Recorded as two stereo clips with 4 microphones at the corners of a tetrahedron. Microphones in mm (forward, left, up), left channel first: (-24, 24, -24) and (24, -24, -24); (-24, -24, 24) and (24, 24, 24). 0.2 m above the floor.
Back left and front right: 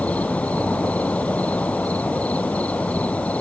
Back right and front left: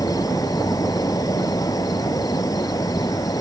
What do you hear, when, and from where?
0.0 s an insect: 155° right